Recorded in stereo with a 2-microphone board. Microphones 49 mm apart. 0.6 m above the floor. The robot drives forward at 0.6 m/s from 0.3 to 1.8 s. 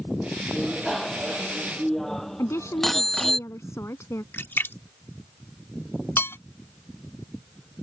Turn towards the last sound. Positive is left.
turn(degrees=50)  # may be behind; listen again after turning